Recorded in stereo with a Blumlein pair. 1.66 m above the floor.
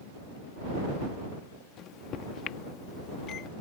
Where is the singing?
No singing in this recording.